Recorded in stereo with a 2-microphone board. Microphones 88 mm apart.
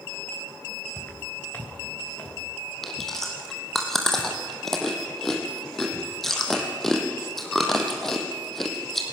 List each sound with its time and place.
1.0 s footsteps: 25° left (ahead or behind), 3 m; by 2.4 s 20° left (ahead or behind), 4.5 m
2.8 s chewing: 5° left (ahead or behind), 3 m